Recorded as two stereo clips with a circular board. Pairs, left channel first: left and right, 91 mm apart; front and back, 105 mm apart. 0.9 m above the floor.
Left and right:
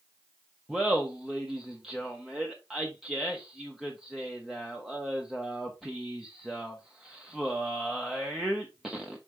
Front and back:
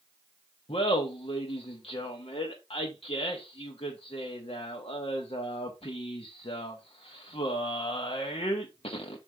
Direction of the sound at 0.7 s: 5° right.